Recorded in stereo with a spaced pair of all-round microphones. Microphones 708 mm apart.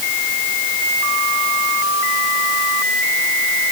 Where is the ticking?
No ticking in this recording.